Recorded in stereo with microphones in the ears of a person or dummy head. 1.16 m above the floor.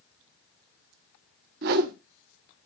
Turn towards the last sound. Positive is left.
turn(degrees=-50)  # may be behind; listen again after turning